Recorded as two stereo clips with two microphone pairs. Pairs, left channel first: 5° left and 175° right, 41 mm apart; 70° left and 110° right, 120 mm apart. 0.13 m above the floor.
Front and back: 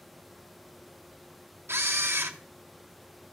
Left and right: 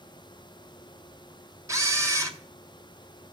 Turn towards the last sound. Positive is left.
turn(degrees=-175)